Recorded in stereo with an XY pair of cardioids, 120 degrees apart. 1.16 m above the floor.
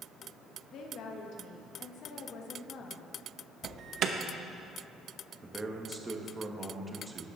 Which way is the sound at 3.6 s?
55° right.